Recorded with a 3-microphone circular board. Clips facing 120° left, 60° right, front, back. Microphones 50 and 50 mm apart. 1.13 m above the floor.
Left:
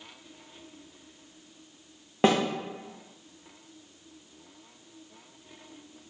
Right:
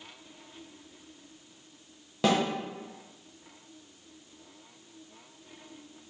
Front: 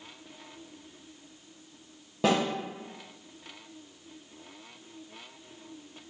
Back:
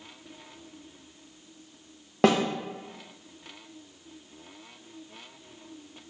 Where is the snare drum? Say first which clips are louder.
Left 3 dB, back 4 dB; 175° left, 0.8 m.